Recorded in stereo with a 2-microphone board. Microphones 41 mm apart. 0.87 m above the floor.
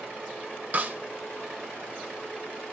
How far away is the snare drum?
About 1.5 m.